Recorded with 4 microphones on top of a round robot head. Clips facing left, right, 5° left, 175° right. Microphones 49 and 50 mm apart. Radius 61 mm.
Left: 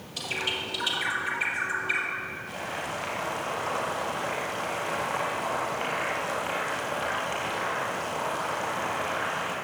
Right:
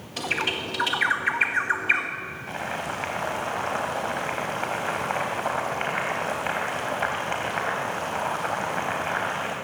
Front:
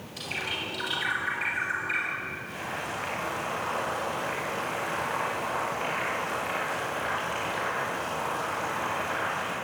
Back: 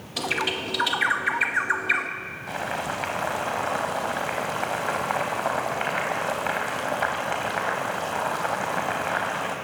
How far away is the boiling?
About 3.5 m.